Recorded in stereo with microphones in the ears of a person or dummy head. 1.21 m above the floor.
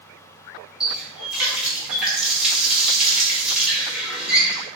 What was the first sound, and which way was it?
A running tap, centre (ahead or behind).